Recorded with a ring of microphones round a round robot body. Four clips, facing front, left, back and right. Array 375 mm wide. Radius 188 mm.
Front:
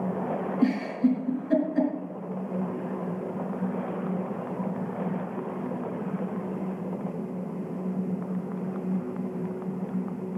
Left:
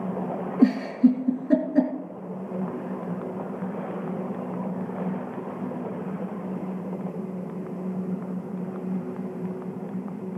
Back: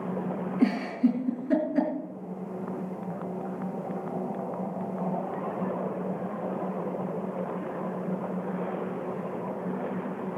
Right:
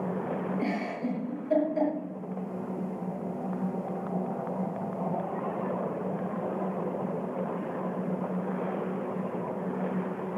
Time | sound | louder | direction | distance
0.6 | a giggle | left 11 dB, even | 100° left | 4.5 m